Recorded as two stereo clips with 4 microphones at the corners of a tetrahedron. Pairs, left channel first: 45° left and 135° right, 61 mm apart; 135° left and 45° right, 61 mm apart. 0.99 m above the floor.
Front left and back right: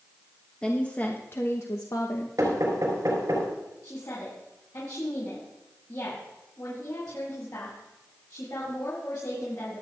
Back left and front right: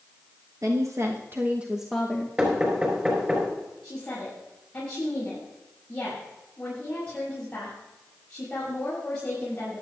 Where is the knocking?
115° right, 4.5 m.